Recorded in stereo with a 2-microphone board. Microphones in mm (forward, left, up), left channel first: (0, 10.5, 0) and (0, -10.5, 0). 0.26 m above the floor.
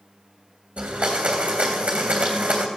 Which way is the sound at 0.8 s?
80° right.